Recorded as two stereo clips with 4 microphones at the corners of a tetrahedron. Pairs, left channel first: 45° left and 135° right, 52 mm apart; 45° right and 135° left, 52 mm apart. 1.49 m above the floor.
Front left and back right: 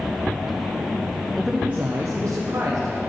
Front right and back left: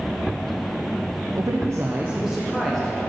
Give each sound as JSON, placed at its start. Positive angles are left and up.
{"t": 1.4, "sound": "a man speaking", "azimuth_deg": 130, "distance_m": 0.7}